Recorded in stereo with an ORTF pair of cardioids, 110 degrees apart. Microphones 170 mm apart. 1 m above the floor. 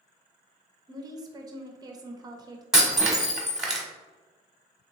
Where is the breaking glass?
5° right, 1.1 m.